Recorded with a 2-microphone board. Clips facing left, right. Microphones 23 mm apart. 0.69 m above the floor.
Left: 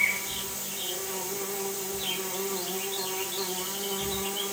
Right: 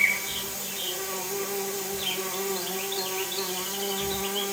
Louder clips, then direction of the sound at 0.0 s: Right 3 dB; 55° right (ahead or behind).